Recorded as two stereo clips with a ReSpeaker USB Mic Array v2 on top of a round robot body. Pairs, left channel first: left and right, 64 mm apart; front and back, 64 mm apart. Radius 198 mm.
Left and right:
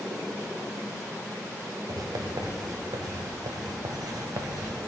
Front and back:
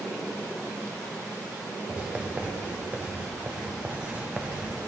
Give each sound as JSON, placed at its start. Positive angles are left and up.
{"t": 1.9, "sound": "writing", "azimuth_deg": -110, "distance_m": 0.7}